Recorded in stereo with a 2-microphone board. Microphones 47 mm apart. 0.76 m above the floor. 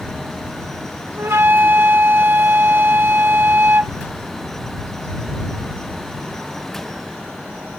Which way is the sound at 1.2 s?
50° right (ahead or behind).